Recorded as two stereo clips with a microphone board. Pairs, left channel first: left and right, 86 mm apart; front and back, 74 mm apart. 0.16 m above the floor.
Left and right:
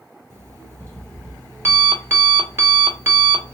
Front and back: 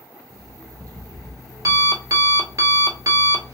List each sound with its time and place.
0.3 s an alarm clock: 145° right, 1.1 m